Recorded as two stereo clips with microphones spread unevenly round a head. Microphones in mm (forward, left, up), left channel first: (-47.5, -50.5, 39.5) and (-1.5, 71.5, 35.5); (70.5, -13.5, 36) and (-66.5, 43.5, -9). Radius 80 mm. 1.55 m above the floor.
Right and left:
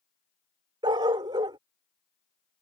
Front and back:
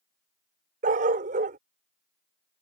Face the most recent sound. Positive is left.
turn(degrees=120)